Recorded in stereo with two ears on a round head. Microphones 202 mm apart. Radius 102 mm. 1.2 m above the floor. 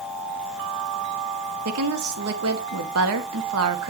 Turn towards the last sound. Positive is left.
turn(degrees=-65)  # may be behind; listen again after turning